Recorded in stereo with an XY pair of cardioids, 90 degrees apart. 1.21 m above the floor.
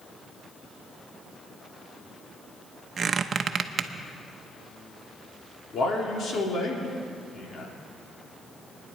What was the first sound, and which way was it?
A squeak, 50° right.